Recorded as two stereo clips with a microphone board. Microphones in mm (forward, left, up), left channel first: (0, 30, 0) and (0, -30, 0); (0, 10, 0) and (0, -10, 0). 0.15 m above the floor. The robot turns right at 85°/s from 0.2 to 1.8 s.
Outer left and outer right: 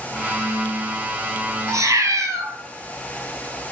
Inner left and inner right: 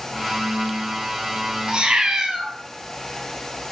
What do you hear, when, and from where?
1.7 s a cat meowing: 60° right (ahead or behind), 0.5 m; by 2.5 s 70° right (ahead or behind), 0.5 m